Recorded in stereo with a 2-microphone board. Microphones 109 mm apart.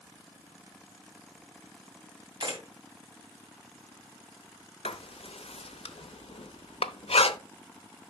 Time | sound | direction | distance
2.4 | a camera shutter | 50° right (ahead or behind) | 2.5 m
4.8 | writing | 70° left (ahead or behind) | 0.7 m